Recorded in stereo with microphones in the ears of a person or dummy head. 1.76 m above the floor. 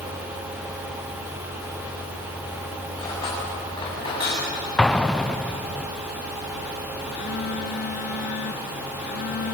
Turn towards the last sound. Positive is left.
turn(degrees=60)  # may be behind; listen again after turning